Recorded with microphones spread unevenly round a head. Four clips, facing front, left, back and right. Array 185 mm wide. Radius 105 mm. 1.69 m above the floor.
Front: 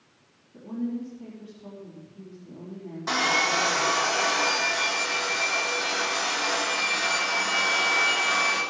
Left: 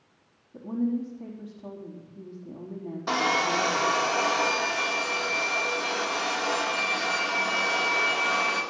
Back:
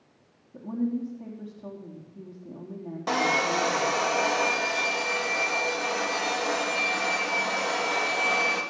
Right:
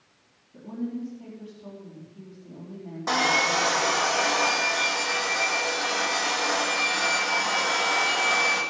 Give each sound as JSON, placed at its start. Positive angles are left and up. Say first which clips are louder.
{"t": 0.5, "sound": "a woman speaking", "louder": "left 5 dB, back 2 dB", "azimuth_deg": 170, "distance_m": 4.0}
{"t": 3.1, "sound": "sawing", "louder": "right 1 dB, back 1 dB", "azimuth_deg": -165, "distance_m": 2.0}